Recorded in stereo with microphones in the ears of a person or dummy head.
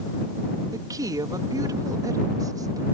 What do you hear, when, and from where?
0.7 s a woman speaking: 20° right (ahead or behind)